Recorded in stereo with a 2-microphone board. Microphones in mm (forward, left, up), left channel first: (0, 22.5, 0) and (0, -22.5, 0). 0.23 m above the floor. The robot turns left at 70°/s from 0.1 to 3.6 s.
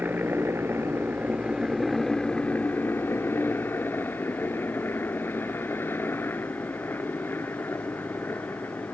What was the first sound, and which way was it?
A helicopter, 50° right (ahead or behind).